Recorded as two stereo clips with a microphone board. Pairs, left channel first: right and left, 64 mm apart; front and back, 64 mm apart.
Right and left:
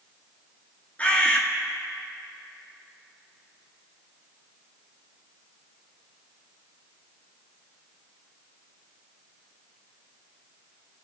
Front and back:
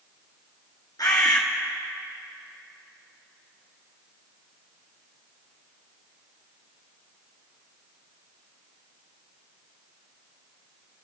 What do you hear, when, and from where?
1.0 s a bird: 20° right, 1.7 m